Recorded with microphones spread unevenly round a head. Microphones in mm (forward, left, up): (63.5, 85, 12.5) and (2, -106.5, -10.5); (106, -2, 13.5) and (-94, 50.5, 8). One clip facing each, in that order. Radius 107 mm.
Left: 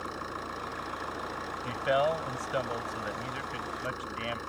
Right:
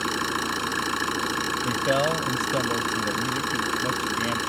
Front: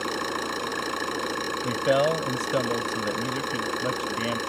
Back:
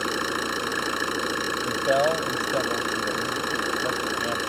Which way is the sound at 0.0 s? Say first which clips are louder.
Right 10 dB, back 2 dB; 115° right.